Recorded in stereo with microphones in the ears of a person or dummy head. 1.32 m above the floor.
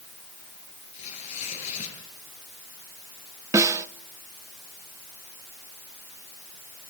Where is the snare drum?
15° right (ahead or behind), 0.6 m.